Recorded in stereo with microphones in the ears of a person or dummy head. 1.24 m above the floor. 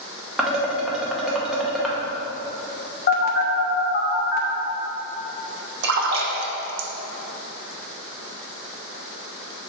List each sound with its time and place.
0.4 s dishes clattering: 5° right (ahead or behind), 0.9 m
3.1 s a phone buzzing: 40° left (ahead or behind), 0.8 m
5.8 s a splash: 65° right (ahead or behind), 0.8 m